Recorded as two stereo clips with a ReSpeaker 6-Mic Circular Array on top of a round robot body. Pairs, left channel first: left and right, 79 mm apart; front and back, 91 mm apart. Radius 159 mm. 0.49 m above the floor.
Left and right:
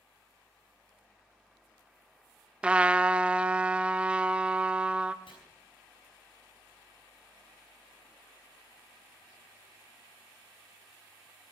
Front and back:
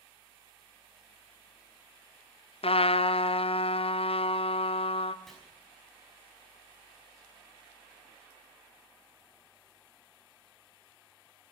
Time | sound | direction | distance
2.6 | a trumpet | 10° right | 0.5 m
5.3 | chopping | 85° left | 5.5 m